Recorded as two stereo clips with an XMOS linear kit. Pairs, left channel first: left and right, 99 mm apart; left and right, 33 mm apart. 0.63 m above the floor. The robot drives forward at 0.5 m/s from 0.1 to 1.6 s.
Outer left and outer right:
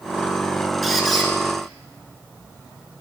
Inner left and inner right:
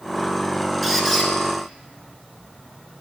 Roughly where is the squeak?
Centre.